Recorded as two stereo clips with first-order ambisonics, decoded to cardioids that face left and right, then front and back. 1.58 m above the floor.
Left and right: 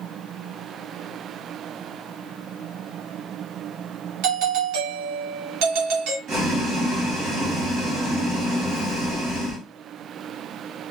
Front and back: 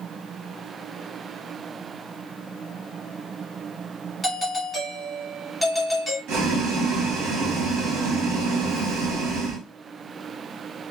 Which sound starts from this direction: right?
A doorbell, at 4.2 s.